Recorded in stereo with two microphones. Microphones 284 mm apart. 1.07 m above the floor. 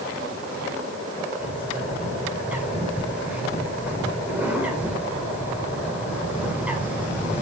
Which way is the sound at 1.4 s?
5° right (ahead or behind).